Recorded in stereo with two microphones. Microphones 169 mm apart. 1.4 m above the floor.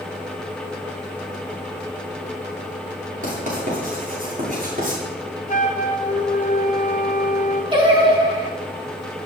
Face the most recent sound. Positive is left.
turn(degrees=-30)  # may be behind; listen again after turning